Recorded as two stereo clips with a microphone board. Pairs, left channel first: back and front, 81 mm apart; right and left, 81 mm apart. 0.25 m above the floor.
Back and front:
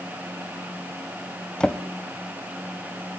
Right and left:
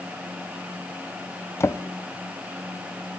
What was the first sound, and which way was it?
A drawer, 110° right.